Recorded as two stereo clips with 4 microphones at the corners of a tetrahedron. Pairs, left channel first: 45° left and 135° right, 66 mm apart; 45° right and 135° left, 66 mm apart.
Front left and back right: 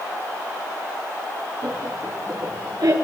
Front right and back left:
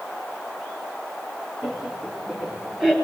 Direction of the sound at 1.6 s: 150° right.